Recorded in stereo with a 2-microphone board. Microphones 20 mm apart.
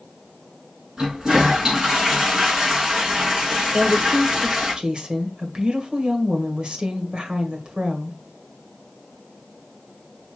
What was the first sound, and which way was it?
A toilet flushing, 40° right (ahead or behind).